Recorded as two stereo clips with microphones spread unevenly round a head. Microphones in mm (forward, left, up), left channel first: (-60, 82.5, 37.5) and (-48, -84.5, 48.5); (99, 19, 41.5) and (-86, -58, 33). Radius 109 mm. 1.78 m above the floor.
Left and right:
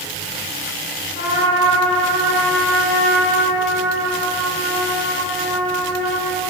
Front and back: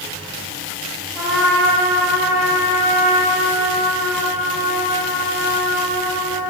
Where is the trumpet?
70° right, 3 m.